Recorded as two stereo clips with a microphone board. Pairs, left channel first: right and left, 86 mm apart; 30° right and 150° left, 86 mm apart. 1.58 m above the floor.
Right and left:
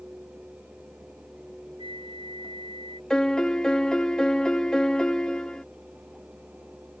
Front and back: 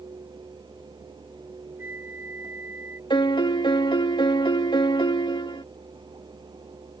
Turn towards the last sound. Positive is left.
turn(degrees=-10)